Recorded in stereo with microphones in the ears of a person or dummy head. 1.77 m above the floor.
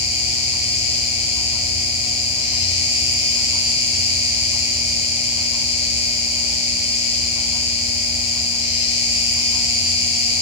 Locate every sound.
0.0 s an insect: 35° left (ahead or behind), 1.1 m